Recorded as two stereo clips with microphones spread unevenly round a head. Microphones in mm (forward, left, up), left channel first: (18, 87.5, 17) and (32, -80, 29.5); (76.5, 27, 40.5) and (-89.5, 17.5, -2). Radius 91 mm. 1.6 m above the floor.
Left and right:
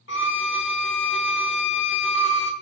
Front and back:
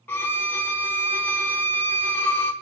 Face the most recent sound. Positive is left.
turn(degrees=80)